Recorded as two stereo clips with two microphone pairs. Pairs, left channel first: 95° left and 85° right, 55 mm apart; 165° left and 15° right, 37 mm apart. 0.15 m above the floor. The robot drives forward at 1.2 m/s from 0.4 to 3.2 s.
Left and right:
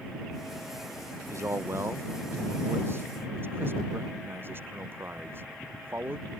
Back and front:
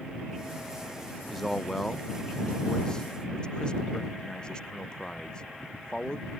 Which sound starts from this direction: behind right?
A man speaking, at 1.3 s.